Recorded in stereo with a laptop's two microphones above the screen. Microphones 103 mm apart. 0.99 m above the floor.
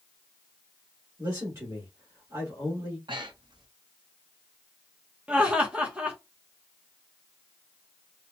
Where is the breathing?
50° right (ahead or behind), 0.7 m.